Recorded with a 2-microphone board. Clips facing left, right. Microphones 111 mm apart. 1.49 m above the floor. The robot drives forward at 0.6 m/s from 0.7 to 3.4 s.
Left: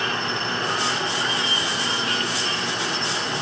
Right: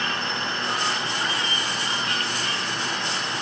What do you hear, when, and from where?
0.0 s an insect: 70° left (ahead or behind), 4 m; by 3.4 s 85° left, 3.5 m